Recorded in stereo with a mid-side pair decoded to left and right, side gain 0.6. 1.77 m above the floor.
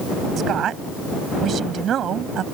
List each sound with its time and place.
0.4 s a woman speaking: 50° right